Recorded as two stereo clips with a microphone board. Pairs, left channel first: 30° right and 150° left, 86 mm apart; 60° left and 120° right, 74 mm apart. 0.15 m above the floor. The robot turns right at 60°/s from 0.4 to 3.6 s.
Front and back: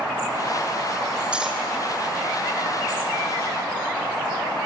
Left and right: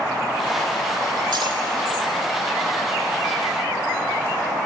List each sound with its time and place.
1.3 s cutlery clinking: 135° right, 4 m; by 1.6 s 115° right, 4 m